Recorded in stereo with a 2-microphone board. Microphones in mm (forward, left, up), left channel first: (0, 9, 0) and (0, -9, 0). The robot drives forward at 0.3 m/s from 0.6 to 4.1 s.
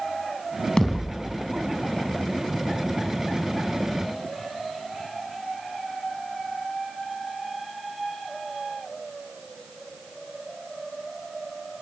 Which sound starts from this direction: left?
A thud, at 0.8 s.